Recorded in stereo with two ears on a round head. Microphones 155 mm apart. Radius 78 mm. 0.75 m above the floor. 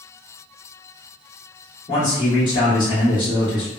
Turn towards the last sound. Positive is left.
turn(degrees=25)  # may be behind; listen again after turning